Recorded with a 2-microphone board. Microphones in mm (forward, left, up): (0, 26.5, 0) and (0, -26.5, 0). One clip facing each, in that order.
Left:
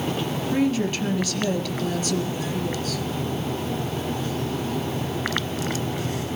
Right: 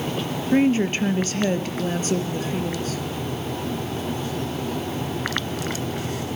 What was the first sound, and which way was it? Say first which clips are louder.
A woman speaking: right 5 dB; 35° right (ahead or behind).